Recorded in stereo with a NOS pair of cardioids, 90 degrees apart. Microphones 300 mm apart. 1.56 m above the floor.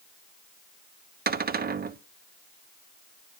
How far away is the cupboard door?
About 0.9 m.